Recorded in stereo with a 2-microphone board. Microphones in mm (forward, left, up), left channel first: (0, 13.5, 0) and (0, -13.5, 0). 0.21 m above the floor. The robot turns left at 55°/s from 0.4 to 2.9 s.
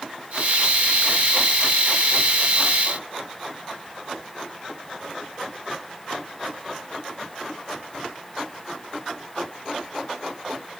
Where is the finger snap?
No finger snap in this recording.